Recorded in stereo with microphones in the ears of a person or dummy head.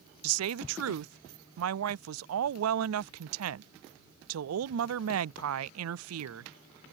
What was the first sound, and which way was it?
A woman speaking, 80° right.